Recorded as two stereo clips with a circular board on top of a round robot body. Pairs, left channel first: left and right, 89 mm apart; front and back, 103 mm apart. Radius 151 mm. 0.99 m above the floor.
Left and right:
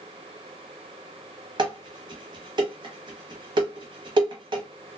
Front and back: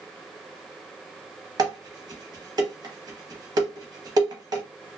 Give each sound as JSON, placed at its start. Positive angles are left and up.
{"t": 1.6, "sound": "dishes clattering", "azimuth_deg": -130, "distance_m": 0.9}